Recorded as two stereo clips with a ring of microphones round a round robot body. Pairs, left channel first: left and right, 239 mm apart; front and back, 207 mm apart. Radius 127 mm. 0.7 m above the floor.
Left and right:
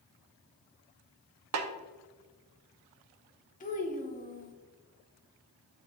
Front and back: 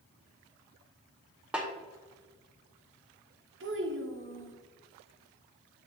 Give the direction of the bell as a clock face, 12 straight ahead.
No bell in this recording.